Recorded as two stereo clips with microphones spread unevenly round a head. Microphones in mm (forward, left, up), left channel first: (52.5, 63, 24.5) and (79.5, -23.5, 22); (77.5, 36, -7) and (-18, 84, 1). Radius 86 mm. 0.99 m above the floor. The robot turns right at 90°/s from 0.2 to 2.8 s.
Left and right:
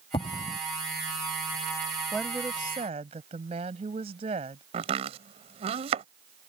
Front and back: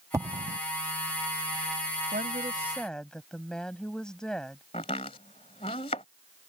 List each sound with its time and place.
0.1 s an explosion: 90° left; by 0.6 s 125° left
2.1 s a woman speaking: 175° right; by 4.6 s 115° right
4.7 s chopping: 85° right